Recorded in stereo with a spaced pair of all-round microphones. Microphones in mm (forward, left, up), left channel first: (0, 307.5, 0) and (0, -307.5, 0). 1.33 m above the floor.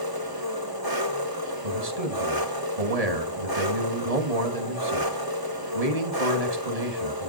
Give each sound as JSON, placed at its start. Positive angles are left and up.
{"t": 0.0, "sound": "an engine running", "side_deg": -35, "distance_m": 2.0}
{"t": 1.6, "sound": "a man speaking", "side_deg": -75, "distance_m": 2.5}